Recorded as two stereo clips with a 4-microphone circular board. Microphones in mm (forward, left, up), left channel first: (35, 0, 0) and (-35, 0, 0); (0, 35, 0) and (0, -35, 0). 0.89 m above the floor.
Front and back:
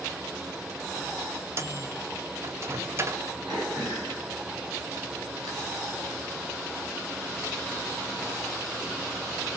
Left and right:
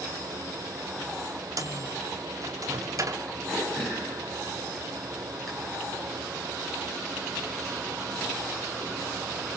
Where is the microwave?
130° right, 1.1 m.